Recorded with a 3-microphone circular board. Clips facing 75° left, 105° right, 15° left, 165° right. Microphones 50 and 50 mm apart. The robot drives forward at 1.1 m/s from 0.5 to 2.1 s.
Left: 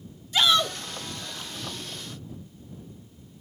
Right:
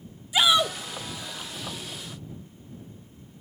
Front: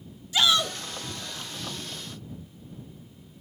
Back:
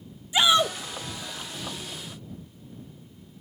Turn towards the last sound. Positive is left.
turn(degrees=180)